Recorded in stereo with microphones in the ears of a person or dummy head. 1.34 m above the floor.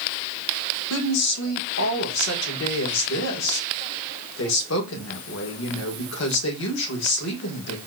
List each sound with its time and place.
0.9 s a woman speaking: 80° left, 1.5 m